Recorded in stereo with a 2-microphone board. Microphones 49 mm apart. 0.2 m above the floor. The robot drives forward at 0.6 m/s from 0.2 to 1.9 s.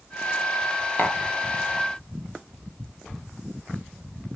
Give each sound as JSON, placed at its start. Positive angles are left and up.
{"t": 1.0, "sound": "tapping", "side_deg": 40, "distance_m": 1.4}